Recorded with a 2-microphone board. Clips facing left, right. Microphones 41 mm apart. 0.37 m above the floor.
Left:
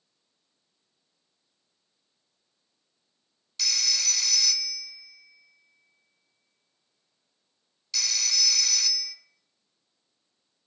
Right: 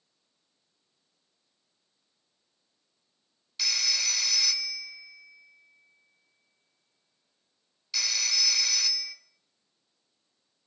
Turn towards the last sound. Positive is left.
turn(degrees=-10)  # may be behind; listen again after turning